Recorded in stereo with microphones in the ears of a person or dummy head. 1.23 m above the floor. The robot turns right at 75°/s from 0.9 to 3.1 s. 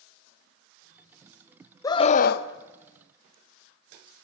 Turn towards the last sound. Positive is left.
turn(degrees=115)